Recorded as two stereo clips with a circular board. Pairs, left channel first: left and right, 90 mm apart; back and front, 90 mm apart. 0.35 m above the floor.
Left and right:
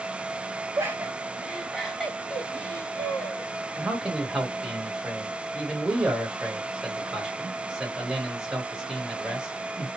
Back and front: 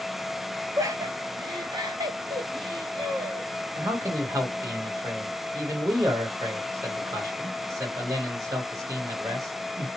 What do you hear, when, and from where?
0.8 s laughter: 40° right, 1.3 m; by 3.5 s 30° left, 2.0 m
3.8 s a man speaking: 10° right, 1.2 m